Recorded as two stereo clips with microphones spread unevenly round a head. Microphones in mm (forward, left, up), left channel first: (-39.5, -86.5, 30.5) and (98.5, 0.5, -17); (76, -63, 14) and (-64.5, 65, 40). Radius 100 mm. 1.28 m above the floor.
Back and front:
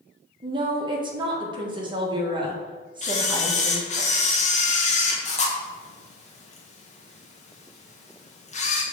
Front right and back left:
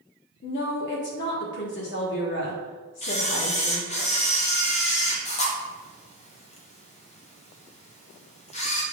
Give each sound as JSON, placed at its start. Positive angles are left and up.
{"t": 0.4, "sound": "a woman speaking", "azimuth_deg": -25, "distance_m": 1.5}
{"t": 3.0, "sound": "a camera shutter", "azimuth_deg": -95, "distance_m": 1.3}